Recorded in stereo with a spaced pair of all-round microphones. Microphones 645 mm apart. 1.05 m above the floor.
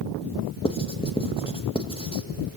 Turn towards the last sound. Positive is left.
turn(degrees=10)  # may be behind; listen again after turning